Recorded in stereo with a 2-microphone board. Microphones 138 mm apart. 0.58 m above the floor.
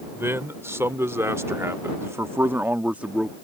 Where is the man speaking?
20° right (ahead or behind); by 3.3 s 5° right (ahead or behind).